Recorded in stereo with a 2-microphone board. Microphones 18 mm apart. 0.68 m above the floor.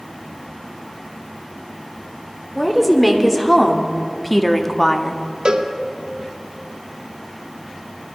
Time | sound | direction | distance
2.5 | a woman speaking | centre (ahead or behind) | 2 m
5.5 | a cowbell | 60° right (ahead or behind) | 1.0 m